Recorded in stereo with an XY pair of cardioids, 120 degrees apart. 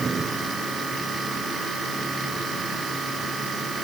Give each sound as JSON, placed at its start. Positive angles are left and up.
{"t": 0.0, "sound": "a machine running", "azimuth_deg": -25}